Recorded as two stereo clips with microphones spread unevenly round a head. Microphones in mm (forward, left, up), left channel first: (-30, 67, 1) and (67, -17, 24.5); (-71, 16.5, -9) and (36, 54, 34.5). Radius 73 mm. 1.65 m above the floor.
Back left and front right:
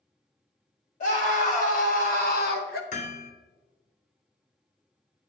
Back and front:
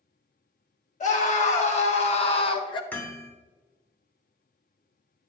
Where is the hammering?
110° left, 2.0 m.